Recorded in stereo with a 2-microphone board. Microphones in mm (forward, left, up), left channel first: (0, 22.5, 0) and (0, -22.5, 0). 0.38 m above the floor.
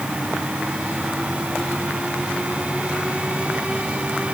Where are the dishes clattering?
No dishes clattering in this recording.